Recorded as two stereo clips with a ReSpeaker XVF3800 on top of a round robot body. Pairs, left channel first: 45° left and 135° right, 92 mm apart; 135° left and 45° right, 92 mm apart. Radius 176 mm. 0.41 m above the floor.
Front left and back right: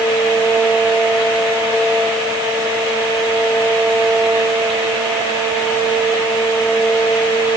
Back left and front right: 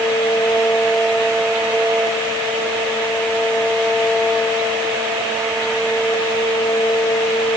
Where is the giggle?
I don't hear a giggle.